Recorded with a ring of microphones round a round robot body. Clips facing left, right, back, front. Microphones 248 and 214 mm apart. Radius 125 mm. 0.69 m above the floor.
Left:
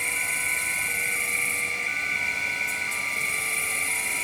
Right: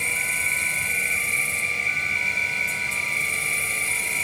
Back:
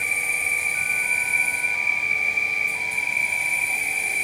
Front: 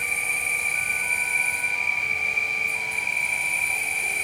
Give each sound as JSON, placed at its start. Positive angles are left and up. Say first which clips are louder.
{"t": 0.0, "sound": "an insect", "louder": "right 2 dB, back 1 dB", "azimuth_deg": -95, "distance_m": 5.0}